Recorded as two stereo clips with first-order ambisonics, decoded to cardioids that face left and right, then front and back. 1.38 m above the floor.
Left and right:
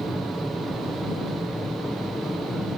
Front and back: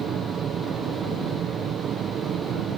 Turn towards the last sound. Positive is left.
turn(degrees=165)